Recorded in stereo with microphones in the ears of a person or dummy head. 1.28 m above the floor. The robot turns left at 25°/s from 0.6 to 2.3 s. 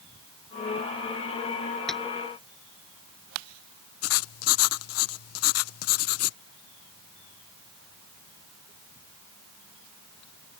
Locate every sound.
1.9 s tapping: 5° left (ahead or behind)
4.0 s writing: 80° left